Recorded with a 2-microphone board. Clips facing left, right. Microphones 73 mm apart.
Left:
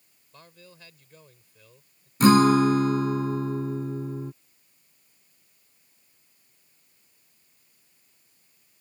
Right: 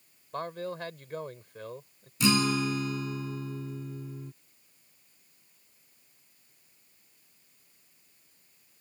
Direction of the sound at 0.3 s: 65° right (ahead or behind).